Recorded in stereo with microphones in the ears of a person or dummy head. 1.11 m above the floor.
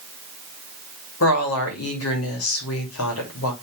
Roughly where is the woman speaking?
Left.